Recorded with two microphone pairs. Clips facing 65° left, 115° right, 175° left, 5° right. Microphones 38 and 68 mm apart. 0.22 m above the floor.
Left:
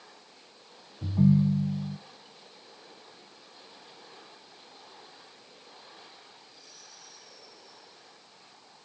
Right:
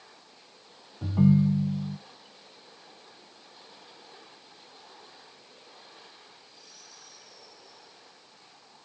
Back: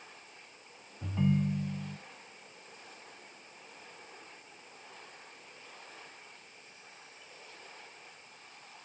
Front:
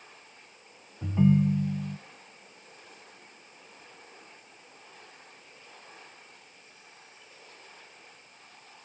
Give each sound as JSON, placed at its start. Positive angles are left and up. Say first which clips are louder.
{"t": 1.0, "sound": "a ringtone", "louder": "right 1 dB, front 7 dB", "azimuth_deg": -75, "distance_m": 0.6}